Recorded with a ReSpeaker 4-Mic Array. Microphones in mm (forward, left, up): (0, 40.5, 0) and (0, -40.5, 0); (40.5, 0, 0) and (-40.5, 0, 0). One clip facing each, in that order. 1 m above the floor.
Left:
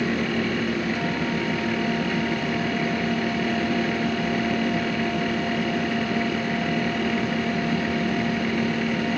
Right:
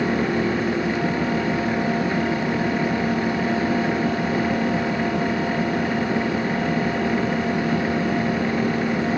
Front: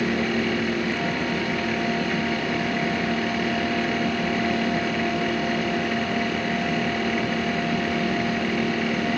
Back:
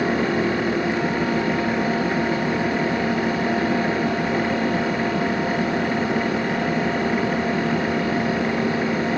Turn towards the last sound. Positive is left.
No sound to turn to.